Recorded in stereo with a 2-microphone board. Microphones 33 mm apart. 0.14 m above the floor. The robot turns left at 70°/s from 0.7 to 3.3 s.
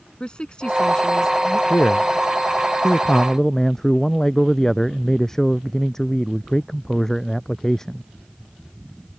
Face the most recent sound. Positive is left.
turn(degrees=15)